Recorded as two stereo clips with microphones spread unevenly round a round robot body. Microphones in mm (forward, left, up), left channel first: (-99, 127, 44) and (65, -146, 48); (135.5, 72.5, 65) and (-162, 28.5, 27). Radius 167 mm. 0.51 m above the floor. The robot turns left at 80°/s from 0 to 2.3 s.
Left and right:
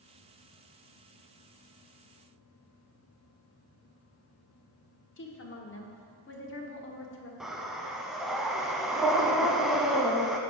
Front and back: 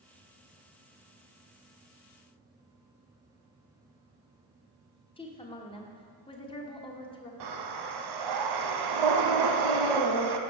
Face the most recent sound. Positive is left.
turn(degrees=-145)